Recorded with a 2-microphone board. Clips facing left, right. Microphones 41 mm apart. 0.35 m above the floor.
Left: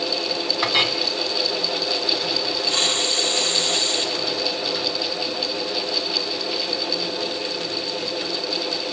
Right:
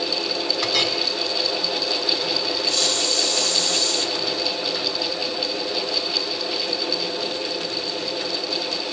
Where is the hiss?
35° left (ahead or behind), 2 m.